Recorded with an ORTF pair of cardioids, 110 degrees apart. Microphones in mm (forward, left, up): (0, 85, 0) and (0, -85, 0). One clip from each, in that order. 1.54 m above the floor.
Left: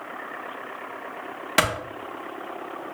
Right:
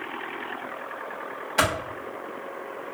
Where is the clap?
70° left, 1.0 m.